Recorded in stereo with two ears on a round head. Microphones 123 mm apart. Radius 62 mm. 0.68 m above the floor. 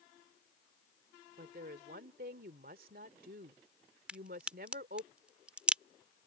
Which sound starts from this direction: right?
A woman speaking, at 1.4 s.